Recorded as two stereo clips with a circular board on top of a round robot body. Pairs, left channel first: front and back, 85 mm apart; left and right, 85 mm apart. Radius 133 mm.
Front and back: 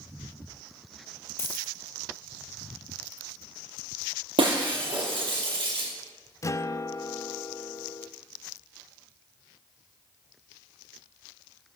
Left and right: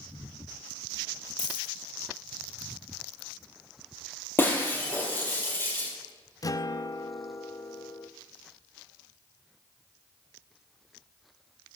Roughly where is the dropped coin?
Ahead left.